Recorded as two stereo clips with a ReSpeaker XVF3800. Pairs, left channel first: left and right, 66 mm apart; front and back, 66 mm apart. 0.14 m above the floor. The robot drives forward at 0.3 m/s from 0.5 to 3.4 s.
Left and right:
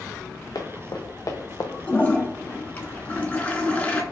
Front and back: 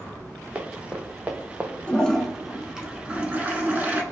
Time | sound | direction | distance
0.6 | running footsteps | 110° left | 1.2 m
1.9 | a toilet flushing | 55° left | 0.6 m